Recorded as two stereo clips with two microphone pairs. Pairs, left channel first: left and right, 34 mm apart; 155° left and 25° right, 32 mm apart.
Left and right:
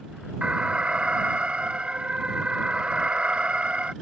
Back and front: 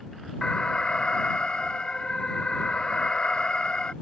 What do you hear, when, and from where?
0.4 s an alarm: 145° right